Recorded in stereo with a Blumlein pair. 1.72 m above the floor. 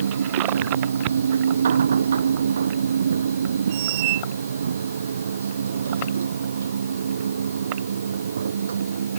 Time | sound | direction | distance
0.0 | a machine running | 70° right | ?
3.7 | a squeak | 50° right | ?